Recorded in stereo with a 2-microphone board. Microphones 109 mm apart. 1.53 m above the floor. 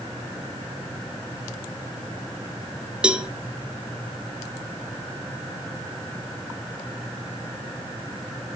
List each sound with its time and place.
3.0 s a cowbell: 10° right (ahead or behind), 1.2 m